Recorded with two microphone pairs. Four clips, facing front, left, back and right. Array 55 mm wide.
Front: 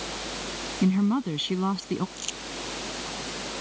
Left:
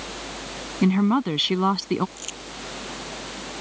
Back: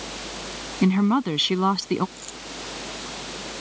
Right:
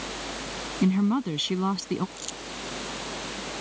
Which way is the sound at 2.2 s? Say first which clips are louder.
Left 1 dB, front 2 dB; 45° left.